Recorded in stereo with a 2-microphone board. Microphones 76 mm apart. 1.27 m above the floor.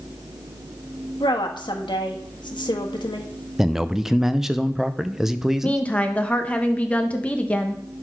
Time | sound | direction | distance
1.2 | a woman speaking | 85° left | 1.5 m
3.6 | a man speaking | 5° right (ahead or behind) | 0.6 m
5.6 | a woman speaking | 15° left (ahead or behind) | 0.9 m